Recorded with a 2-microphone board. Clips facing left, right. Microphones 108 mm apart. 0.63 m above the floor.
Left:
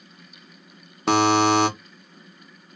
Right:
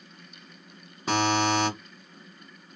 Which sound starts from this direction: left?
A buzzer, at 1.1 s.